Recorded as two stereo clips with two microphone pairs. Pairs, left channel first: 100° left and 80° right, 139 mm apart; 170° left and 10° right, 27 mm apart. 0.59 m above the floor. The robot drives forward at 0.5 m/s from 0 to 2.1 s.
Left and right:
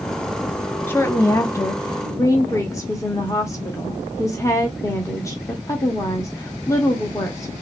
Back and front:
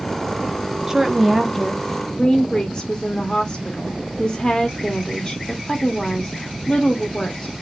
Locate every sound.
0.9 s a woman speaking: 45° left, 0.7 m; by 7.5 s 150° left, 0.7 m